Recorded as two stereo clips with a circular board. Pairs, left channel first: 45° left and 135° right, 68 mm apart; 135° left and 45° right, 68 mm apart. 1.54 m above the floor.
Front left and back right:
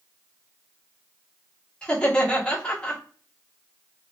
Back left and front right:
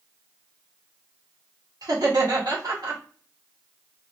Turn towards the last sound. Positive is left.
turn(degrees=-30)